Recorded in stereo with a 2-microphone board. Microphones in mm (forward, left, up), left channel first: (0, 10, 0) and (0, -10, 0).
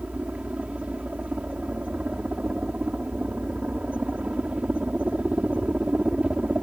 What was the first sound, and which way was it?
A helicopter, 65° right (ahead or behind).